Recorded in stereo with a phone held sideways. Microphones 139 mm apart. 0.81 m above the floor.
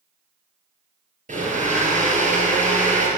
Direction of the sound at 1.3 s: 60° right (ahead or behind).